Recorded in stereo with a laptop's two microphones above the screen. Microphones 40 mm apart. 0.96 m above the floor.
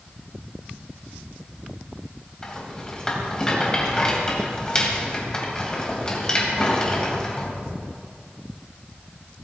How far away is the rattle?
About 3 m.